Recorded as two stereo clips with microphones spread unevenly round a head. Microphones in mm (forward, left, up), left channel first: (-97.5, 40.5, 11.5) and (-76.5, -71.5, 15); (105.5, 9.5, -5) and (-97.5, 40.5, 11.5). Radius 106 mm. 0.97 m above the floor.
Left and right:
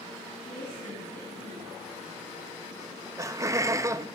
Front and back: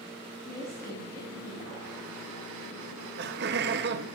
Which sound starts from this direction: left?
A woman speaking, at 0.5 s.